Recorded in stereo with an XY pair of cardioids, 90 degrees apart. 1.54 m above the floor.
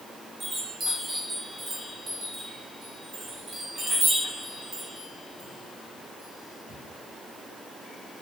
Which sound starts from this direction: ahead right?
A chime, at 0.4 s.